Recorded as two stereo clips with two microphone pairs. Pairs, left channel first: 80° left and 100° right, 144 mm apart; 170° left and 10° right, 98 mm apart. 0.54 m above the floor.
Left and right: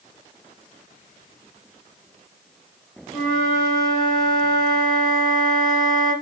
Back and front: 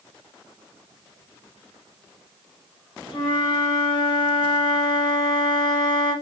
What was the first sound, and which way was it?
A flute, 165° left.